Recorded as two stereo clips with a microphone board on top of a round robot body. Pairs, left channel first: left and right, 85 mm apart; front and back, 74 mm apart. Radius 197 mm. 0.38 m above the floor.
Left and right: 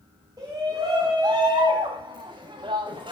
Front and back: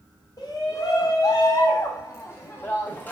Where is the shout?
40° right, 5.5 m; by 3.1 s 70° right, 3.5 m.